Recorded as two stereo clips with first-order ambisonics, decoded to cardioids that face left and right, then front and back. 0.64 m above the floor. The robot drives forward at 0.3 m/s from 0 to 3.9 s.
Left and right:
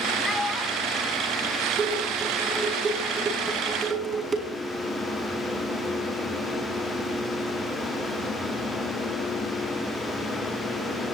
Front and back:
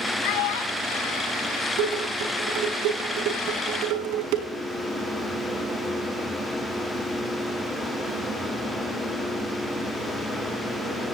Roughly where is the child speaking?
Ahead.